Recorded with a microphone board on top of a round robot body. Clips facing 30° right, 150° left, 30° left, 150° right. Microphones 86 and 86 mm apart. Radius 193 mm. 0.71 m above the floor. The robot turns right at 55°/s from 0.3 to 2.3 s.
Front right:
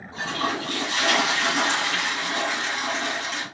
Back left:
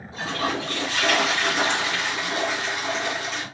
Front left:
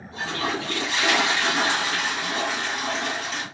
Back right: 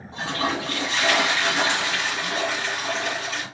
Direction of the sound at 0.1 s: 95° right.